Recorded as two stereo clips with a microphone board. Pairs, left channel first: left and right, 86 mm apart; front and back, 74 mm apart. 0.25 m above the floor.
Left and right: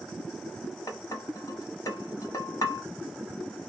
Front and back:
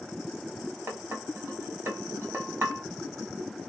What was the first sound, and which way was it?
Dishes clattering, 130° left.